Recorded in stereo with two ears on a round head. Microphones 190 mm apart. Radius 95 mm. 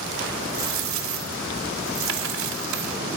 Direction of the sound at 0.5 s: 70° right (ahead or behind).